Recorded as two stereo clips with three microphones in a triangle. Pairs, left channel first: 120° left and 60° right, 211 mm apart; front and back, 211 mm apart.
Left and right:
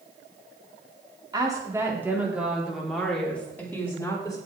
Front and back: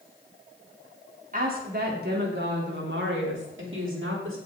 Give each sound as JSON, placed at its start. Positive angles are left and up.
{"t": 1.3, "sound": "a woman speaking", "azimuth_deg": -130, "distance_m": 3.5}